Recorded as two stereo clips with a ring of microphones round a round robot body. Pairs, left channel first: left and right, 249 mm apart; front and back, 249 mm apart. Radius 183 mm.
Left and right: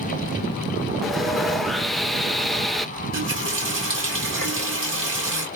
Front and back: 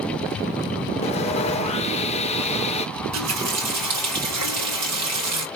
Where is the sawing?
Straight ahead, 0.8 m.